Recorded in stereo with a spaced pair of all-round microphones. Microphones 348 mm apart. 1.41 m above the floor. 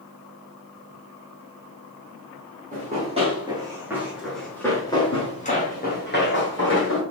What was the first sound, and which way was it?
Running footsteps, 20° right (ahead or behind).